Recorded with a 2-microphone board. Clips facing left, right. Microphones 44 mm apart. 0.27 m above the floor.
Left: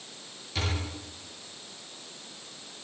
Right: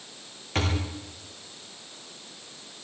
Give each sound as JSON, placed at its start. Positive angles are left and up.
{"t": 0.6, "sound": "a thud", "side_deg": -50, "distance_m": 7.0}